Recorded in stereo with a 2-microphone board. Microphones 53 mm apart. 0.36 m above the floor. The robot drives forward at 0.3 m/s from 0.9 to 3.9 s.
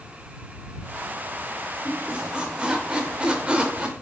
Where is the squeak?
15° right (ahead or behind), 0.7 m; by 3.9 s 20° right (ahead or behind), 0.6 m.